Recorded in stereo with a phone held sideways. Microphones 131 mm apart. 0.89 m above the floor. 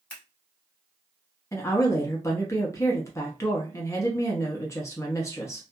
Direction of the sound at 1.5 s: 20° left (ahead or behind).